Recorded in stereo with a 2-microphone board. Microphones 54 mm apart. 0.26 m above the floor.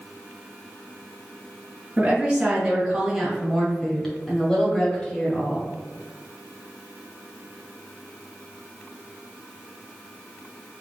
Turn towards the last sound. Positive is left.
turn(degrees=25)  # may be behind; listen again after turning